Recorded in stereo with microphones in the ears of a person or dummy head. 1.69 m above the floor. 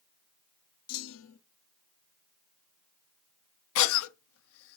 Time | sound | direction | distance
0.9 | a clunk | 80° left | 0.5 m
3.8 | a cough | 75° left (ahead or behind) | 0.6 m